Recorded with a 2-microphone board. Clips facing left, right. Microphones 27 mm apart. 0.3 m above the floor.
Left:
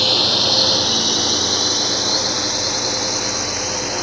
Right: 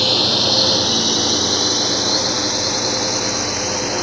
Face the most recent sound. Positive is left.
turn(degrees=-5)  # may be behind; listen again after turning